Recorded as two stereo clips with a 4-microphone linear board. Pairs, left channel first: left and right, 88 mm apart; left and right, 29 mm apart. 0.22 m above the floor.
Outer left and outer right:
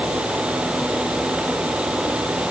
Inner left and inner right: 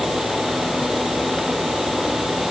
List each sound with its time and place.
Only background noise.